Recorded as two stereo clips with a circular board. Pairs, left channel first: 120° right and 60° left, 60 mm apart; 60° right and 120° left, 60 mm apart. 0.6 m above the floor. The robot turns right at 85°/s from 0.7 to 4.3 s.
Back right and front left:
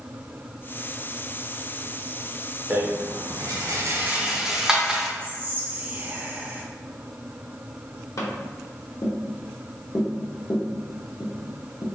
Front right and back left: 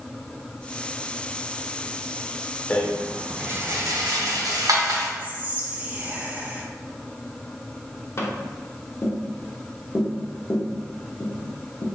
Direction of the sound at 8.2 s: 100° right.